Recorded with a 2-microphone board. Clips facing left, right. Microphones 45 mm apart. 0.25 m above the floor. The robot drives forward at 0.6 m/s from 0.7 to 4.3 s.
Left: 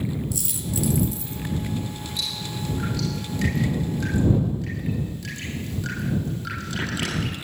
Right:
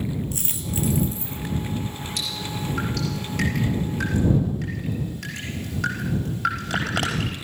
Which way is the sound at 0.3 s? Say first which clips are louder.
Even; 35° right (ahead or behind).